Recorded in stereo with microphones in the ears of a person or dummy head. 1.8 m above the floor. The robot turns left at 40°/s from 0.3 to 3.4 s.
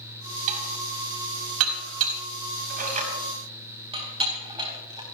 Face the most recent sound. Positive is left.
turn(degrees=-20)  # may be behind; listen again after turning